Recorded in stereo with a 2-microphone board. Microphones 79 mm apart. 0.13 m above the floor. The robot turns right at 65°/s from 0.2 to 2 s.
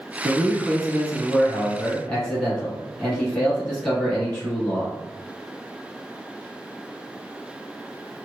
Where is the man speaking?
15° left (ahead or behind), 1.2 m; by 4.9 s 5° left (ahead or behind), 1.2 m.